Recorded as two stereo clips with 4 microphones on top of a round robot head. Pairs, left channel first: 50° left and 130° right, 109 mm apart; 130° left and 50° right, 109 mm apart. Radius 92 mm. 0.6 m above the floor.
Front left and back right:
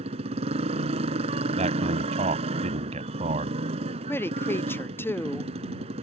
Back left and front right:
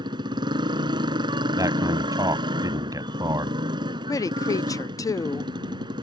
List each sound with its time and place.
0.0 s a motorcycle: 100° right
1.6 s a man speaking: 105° right
4.1 s a woman speaking: 105° left